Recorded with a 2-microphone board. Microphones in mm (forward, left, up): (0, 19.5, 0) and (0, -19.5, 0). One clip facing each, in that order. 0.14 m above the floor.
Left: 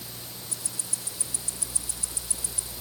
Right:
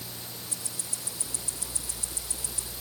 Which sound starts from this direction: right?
Ticking, at 0.5 s.